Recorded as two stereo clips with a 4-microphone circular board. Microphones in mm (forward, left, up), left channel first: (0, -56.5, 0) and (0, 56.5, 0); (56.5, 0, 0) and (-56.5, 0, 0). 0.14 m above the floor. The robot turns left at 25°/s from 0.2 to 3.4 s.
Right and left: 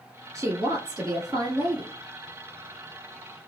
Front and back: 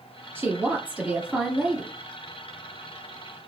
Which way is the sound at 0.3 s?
125° left.